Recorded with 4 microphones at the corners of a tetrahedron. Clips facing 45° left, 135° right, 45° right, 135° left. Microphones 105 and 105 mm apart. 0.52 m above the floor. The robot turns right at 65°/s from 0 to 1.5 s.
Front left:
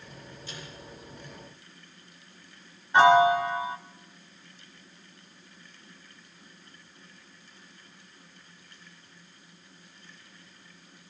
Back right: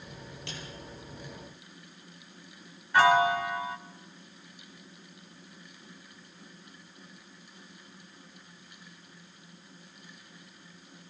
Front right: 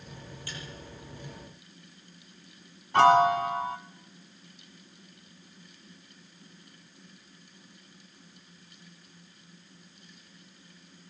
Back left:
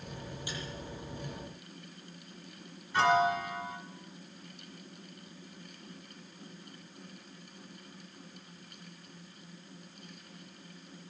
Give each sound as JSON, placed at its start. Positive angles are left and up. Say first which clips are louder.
{"t": 0.5, "sound": "a snare drum", "louder": "back right 1 dB, back left 1 dB", "azimuth_deg": -155, "distance_m": 8.0}
{"t": 2.9, "sound": "a piano", "louder": "front left 4 dB, front right 7 dB", "azimuth_deg": -20, "distance_m": 1.3}